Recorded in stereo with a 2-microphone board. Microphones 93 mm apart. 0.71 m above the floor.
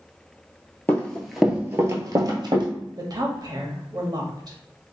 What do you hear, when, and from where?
0.9 s running footsteps: 20° left (ahead or behind), 0.7 m; by 2.7 s 55° right (ahead or behind), 1.1 m
3.0 s a woman speaking: 45° right (ahead or behind), 0.8 m